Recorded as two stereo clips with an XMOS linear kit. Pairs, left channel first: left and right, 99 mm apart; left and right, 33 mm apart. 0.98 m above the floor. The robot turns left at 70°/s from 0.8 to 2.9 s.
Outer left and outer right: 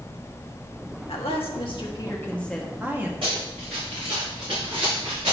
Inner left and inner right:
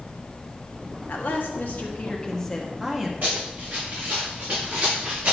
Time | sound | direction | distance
1.1 | a woman speaking | 105° left | 1.5 m
3.2 | running footsteps | 65° right (ahead or behind) | 3.5 m